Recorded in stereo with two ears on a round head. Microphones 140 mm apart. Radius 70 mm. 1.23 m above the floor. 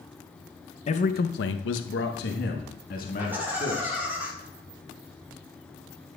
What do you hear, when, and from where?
0.9 s a man speaking: 40° left (ahead or behind), 0.7 m; by 4.0 s 45° left (ahead or behind), 2.5 m
3.2 s laughter: 10° right (ahead or behind), 4 m